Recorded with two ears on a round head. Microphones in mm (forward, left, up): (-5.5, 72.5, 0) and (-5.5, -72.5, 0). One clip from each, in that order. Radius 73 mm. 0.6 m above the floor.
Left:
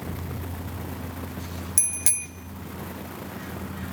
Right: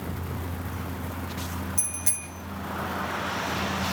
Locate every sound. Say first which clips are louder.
1.8 s a bicycle bell: left 3 dB; 55° left (ahead or behind), 2.5 m